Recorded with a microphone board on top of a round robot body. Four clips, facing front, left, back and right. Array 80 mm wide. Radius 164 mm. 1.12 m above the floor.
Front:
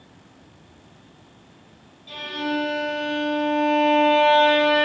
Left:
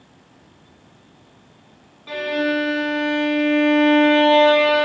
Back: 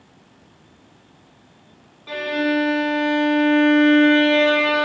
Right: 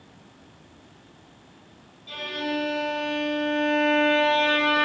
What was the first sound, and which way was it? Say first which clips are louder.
A violin: left 9 dB, back 6 dB; 135° left.